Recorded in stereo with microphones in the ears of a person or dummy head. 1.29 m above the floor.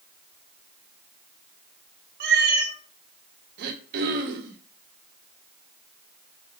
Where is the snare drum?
No snare drum in this recording.